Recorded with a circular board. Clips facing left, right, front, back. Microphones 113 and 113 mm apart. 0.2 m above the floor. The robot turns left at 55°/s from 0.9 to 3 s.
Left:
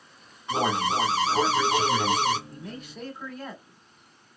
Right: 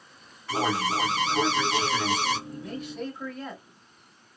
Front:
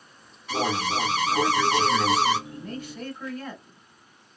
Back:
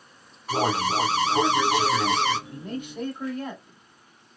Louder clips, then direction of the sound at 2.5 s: Right 4 dB, back 2 dB; 160° right.